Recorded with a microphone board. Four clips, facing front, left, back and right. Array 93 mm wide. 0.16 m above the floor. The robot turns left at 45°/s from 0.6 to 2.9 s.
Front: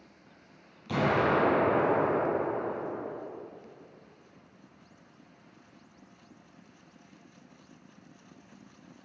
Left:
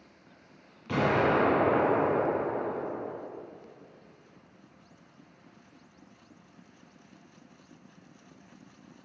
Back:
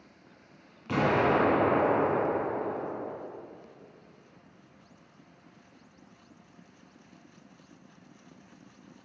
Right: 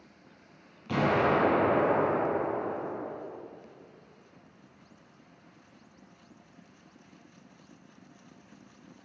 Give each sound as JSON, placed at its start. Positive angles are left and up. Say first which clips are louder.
{"t": 0.9, "sound": "an explosion", "louder": "even, back 1 dB", "azimuth_deg": 180, "distance_m": 1.8}